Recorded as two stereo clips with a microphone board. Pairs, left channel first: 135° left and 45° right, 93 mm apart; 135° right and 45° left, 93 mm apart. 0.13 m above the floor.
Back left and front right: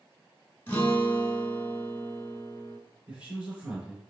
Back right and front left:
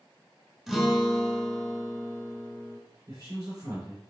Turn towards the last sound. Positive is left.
turn(degrees=25)